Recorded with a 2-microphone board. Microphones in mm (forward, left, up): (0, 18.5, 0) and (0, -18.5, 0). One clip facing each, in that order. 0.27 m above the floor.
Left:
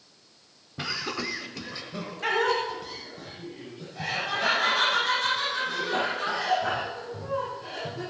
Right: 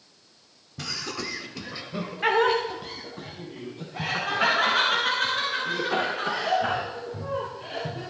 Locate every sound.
0.8 s laughter: 25° left (ahead or behind), 1.3 m; by 8.0 s 50° right (ahead or behind), 6 m